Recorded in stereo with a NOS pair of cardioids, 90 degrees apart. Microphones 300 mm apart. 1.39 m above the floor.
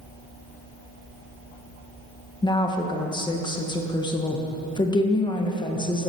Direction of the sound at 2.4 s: 15° left.